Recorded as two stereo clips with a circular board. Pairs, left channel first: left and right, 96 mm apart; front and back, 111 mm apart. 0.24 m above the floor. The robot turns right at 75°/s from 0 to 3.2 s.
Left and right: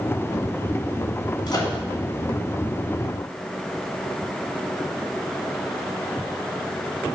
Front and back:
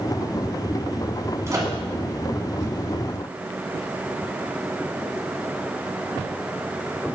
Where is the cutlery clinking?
I don't hear cutlery clinking.